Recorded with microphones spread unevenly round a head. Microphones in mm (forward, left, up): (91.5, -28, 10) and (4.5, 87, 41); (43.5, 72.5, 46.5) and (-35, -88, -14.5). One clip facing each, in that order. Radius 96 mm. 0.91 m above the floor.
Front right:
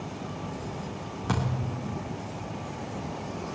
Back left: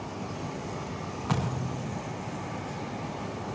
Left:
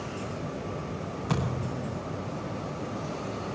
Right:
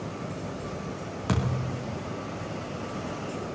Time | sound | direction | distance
1.3 | a thud | 115° right | 4.5 m